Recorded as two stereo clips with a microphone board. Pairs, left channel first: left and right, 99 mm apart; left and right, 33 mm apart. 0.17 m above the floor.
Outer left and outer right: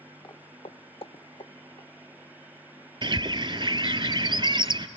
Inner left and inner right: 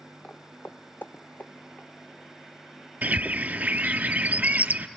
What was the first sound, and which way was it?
Footsteps, 40° left (ahead or behind).